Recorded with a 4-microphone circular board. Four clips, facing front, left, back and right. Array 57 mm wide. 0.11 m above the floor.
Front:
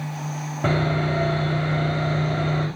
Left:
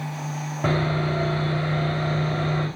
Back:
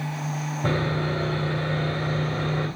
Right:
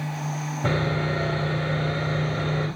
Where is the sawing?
50° left, 6.5 m.